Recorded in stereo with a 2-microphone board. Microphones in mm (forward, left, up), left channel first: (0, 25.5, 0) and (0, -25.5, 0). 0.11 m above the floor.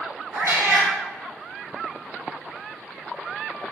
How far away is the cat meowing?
About 1.8 m.